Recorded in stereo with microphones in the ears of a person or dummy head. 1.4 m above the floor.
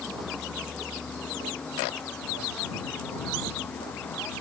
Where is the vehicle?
5° left (ahead or behind); by 4.4 s 10° left (ahead or behind).